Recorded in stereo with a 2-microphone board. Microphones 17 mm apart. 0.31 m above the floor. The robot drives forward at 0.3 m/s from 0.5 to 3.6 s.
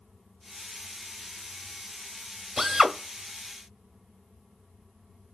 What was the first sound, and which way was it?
A drill, 25° right (ahead or behind).